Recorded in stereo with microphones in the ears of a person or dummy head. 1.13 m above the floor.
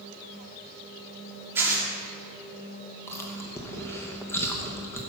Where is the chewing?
10° left (ahead or behind), 1.0 m.